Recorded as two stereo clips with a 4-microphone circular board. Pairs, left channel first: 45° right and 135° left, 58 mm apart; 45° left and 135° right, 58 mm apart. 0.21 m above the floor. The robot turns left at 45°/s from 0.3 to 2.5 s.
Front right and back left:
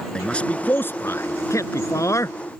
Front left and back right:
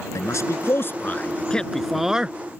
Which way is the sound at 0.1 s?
25° left.